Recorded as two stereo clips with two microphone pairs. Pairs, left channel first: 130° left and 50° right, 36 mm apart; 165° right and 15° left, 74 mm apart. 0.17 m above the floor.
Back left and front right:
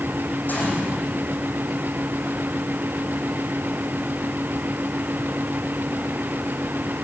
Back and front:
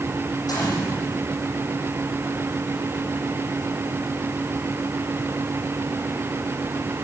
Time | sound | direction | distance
0.5 | a gunshot | 170° left | 10 m